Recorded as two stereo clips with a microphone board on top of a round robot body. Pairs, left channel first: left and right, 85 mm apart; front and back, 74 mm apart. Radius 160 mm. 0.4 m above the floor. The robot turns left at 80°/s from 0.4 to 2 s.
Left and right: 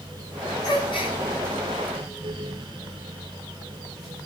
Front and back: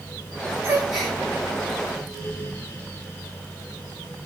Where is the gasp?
120° left, 5.5 m; by 1.2 s 80° left, 5.5 m.